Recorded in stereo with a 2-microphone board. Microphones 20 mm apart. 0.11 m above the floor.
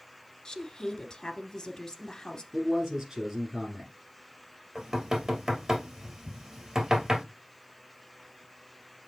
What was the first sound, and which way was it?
A woman speaking, 30° left (ahead or behind).